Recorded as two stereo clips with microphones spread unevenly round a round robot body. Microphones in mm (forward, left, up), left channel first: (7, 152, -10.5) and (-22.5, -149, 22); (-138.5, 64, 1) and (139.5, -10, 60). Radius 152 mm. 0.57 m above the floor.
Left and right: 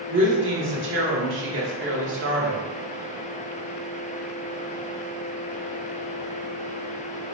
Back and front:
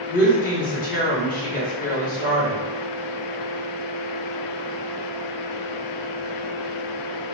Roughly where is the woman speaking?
Behind right.